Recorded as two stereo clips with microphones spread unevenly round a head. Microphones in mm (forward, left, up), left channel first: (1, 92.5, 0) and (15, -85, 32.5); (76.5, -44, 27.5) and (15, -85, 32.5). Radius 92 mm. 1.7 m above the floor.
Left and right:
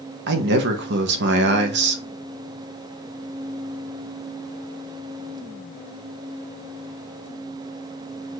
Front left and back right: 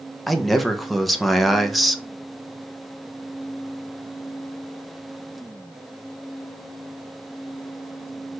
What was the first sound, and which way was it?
A man speaking, 55° right.